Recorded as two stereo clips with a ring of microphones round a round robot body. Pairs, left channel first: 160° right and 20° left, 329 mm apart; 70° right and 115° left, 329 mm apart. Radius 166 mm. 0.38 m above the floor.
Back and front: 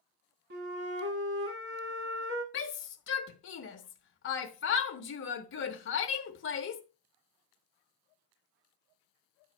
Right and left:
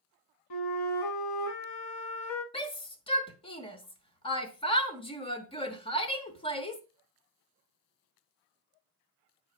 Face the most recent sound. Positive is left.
turn(degrees=-135)